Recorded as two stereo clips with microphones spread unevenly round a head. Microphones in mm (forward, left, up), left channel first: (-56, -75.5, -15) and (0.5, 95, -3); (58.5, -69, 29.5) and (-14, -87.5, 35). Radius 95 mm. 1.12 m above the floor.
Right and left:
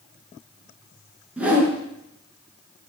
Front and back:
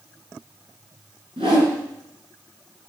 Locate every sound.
1.4 s a whoosh: 155° left, 5.5 m